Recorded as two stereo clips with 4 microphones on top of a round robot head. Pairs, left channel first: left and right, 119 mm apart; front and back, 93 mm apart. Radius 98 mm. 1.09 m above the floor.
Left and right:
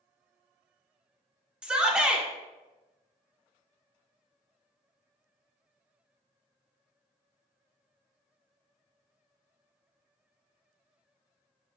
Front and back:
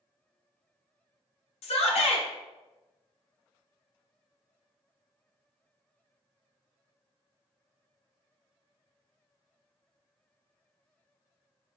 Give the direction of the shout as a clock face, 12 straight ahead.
12 o'clock.